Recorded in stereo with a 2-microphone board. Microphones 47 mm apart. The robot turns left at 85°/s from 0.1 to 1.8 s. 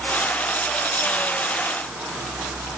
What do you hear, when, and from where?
Only background noise.